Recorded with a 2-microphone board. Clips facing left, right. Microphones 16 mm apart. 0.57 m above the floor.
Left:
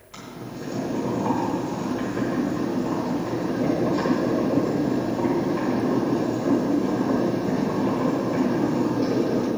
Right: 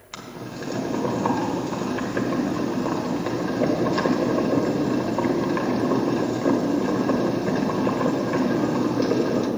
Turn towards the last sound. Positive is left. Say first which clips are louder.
# right 2 dB
turn(degrees=-50)  # may be behind; listen again after turning